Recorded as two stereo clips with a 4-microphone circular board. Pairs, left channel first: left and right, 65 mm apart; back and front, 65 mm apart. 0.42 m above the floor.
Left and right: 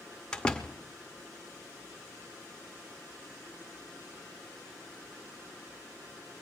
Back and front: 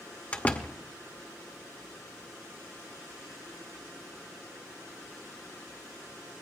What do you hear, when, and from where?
0.3 s a door slam: 150° left, 0.8 m